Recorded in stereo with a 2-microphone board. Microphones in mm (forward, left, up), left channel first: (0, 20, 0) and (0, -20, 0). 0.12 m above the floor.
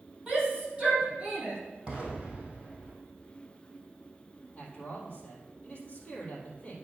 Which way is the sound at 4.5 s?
30° left (ahead or behind).